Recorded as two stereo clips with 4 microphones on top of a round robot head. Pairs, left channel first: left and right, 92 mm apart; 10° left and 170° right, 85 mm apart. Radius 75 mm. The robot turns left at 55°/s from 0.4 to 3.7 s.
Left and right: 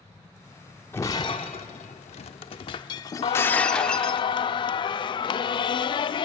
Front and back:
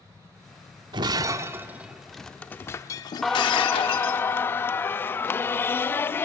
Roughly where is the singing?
Left.